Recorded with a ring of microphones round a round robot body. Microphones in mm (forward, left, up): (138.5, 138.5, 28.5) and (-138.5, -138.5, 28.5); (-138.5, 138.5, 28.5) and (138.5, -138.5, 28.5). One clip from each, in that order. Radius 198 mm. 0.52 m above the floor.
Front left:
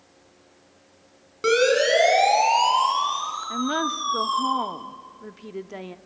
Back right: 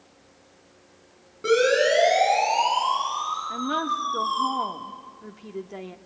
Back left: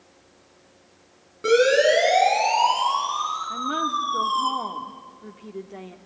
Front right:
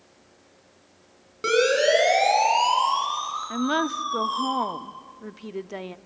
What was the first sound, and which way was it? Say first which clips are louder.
A siren: front left 1 dB, back left 3 dB; 10° left.